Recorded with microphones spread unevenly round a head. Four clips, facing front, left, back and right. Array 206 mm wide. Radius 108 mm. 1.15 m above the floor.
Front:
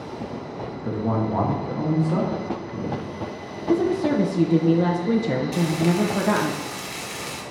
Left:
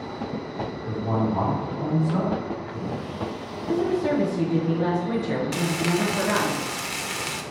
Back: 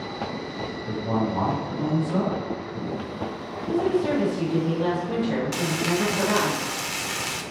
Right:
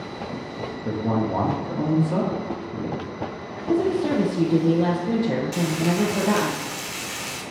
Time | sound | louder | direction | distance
0.8 | a man speaking | right 2 dB, front 2 dB | 50° right | 1.5 m
3.7 | a woman speaking | right 2 dB, front 2 dB | 35° right | 0.8 m
5.5 | frying | right 2 dB, front 4 dB | 120° left | 0.9 m